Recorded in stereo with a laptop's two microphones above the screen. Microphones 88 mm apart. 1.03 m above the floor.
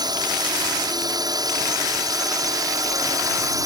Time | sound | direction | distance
0.0 | a drone | 50° right (ahead or behind) | ?